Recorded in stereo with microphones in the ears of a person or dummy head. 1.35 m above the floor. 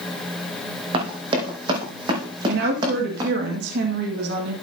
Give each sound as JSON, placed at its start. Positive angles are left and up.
{"t": 0.9, "sound": "running footsteps", "side_deg": -40, "distance_m": 4.0}
{"t": 2.5, "sound": "a woman speaking", "side_deg": -70, "distance_m": 2.0}